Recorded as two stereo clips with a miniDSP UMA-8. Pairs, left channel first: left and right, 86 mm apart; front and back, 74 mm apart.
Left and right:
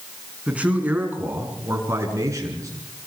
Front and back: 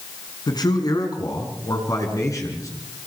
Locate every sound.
0.5 s a man speaking: 15° right, 5 m; by 2.7 s 45° right, 6 m